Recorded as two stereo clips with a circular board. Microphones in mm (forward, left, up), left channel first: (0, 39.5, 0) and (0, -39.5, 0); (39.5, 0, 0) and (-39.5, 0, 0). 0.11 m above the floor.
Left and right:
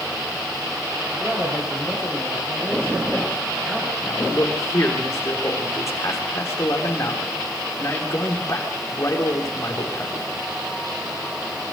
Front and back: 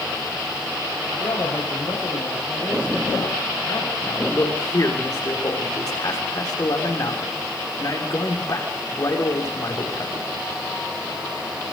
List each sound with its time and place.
1.1 s a man speaking: 10° right, 9.5 m
4.0 s a man speaking: 35° left, 6 m